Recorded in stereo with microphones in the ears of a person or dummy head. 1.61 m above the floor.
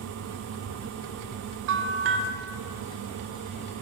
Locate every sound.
1.7 s a bell: 55° right (ahead or behind), 0.6 m